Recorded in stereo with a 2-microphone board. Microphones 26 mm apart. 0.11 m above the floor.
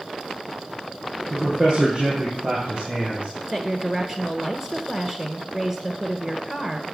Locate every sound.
1.3 s a man speaking: 40° right (ahead or behind), 4 m; by 3.3 s 60° right (ahead or behind), 3 m
3.5 s a woman speaking: 20° right (ahead or behind), 1.4 m